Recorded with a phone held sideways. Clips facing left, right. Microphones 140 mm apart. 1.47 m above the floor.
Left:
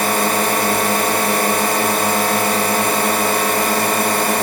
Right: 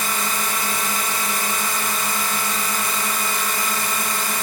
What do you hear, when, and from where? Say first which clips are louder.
0.0 s a drone: left 9 dB; 60° left (ahead or behind)